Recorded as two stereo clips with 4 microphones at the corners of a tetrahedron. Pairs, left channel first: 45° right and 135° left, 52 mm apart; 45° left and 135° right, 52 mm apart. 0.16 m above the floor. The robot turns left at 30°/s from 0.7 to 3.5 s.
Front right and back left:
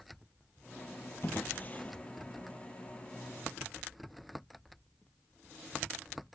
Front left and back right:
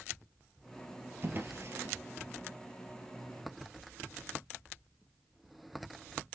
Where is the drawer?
90° right, 1.4 m; by 2.0 s 110° right, 1.4 m.